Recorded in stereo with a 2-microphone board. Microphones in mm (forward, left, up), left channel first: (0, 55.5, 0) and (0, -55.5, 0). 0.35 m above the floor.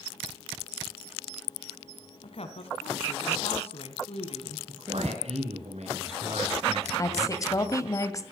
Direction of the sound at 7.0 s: 30° left (ahead or behind).